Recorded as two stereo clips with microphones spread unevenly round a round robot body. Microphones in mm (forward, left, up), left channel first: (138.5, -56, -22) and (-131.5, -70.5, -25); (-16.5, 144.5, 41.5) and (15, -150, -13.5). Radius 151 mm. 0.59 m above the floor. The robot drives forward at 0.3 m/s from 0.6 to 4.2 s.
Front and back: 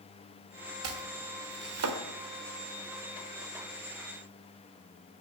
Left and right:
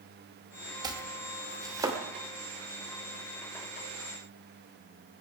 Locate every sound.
0.8 s chopping: 155° right, 1.7 m; by 2.0 s 160° right, 2 m